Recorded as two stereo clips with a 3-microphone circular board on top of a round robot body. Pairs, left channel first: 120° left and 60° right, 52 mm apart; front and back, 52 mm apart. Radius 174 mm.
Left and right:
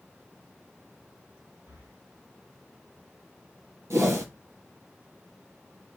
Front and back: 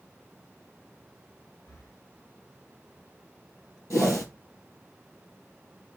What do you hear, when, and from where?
1.7 s breathing: 35° right, 4.5 m
3.9 s a whoosh: 20° right, 5.5 m